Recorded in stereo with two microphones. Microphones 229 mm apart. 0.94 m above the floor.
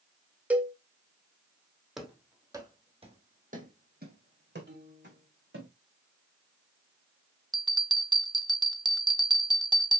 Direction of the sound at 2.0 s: Centre (ahead or behind).